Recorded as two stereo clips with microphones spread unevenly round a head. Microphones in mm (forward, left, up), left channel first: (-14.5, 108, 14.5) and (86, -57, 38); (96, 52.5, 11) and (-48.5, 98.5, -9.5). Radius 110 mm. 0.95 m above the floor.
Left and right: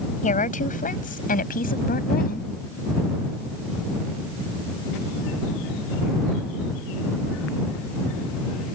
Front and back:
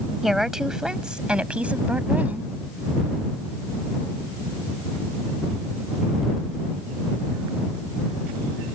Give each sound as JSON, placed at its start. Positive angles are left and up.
{"t": 0.2, "sound": "a woman speaking", "azimuth_deg": 75}